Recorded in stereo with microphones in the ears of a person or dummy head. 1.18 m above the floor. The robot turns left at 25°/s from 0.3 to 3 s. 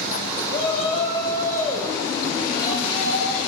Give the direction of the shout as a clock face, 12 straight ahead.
10 o'clock.